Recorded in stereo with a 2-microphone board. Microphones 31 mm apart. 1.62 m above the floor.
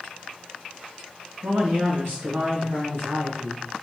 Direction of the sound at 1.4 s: 85° right.